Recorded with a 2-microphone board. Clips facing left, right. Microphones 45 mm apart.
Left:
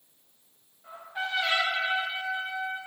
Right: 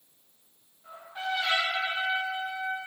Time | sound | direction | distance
0.8 | a trumpet | 10° left (ahead or behind) | 4.5 m